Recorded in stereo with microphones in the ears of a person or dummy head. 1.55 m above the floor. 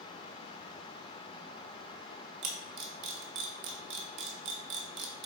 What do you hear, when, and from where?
2.4 s a camera shutter: 60° right (ahead or behind), 1.2 m